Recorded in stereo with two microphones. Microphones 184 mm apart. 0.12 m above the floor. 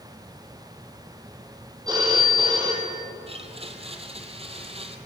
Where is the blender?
30° right (ahead or behind), 1.6 m.